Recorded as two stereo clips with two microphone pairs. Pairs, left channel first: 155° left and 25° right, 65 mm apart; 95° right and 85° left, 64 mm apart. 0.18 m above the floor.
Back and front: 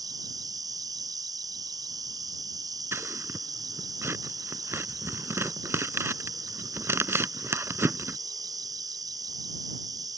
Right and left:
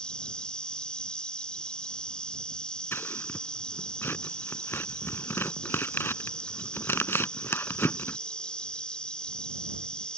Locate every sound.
0.0 s an insect: 15° right
2.9 s scissors: 50° right